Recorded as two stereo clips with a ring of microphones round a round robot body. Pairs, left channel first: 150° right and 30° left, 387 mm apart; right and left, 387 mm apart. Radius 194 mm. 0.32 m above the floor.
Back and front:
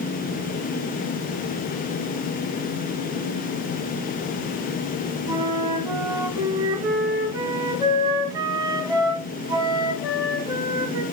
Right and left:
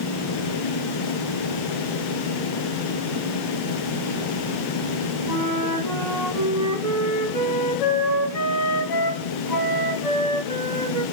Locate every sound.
5.3 s a flute: 50° right, 1.9 m